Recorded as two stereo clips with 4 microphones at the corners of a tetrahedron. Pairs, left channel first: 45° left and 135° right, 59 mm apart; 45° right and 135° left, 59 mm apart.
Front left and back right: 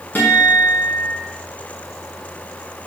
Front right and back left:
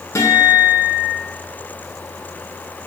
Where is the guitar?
10° right, 4 m.